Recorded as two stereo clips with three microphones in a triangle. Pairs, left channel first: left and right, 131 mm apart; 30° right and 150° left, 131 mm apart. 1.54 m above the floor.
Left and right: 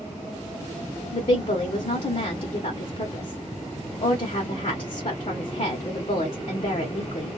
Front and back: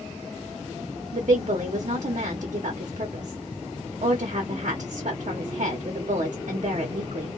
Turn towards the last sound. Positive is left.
turn(degrees=130)